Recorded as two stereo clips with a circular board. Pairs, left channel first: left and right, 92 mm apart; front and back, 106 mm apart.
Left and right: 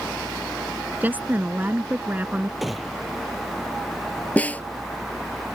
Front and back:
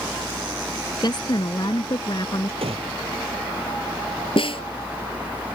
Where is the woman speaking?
25° right.